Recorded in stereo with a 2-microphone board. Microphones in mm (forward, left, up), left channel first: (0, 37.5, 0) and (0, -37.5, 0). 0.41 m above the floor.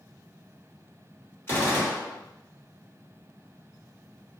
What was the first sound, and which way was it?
A gunshot, 35° left (ahead or behind).